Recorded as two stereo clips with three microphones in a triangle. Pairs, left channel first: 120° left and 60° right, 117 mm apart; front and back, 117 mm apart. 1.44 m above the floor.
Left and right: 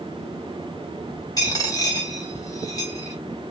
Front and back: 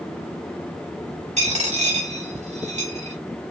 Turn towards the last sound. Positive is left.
turn(degrees=175)